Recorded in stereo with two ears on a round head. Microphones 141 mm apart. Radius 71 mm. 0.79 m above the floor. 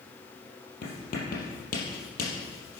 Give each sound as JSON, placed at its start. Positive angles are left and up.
{"t": 0.8, "sound": "writing", "side_deg": 60, "distance_m": 4.5}